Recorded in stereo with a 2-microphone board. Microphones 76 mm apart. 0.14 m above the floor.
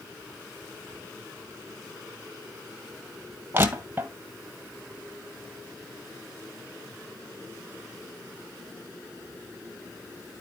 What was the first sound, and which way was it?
Crushing, 25° right (ahead or behind).